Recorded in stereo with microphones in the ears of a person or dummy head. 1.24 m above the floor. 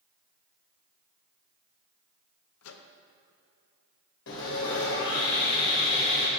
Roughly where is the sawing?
Left.